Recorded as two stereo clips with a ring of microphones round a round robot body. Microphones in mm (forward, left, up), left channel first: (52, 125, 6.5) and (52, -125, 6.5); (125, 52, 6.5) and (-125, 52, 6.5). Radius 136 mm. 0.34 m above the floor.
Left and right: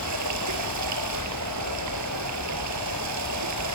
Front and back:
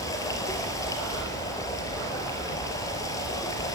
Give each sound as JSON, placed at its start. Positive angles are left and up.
{"t": 0.0, "sound": "running water", "azimuth_deg": -80, "distance_m": 4.0}